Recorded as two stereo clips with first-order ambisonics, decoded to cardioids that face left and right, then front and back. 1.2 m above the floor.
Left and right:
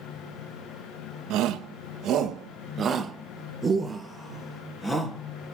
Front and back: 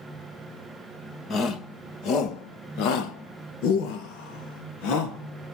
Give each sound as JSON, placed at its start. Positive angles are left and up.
{"t": 1.3, "sound": "a shout", "azimuth_deg": -55, "distance_m": 1.6}